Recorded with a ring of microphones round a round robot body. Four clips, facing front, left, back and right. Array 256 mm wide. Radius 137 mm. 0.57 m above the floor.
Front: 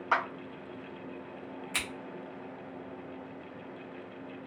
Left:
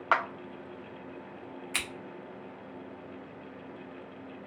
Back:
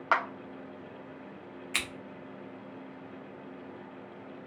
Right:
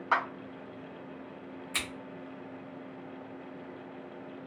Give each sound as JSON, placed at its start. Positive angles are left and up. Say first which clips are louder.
{"t": 0.1, "sound": "a clap", "louder": "left 1 dB, back 1 dB", "azimuth_deg": 125, "distance_m": 0.6}
{"t": 1.7, "sound": "scissors", "louder": "even, back 2 dB", "azimuth_deg": 150, "distance_m": 0.9}